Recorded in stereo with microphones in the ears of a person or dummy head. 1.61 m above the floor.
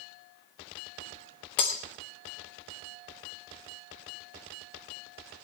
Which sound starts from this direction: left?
Breaking glass, at 1.6 s.